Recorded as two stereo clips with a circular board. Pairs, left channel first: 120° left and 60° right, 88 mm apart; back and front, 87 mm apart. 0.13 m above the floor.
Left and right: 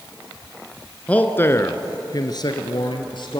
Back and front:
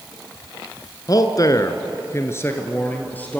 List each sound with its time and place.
1.1 s a man speaking: 170° right, 1.4 m; by 3.4 s 110° left, 2.5 m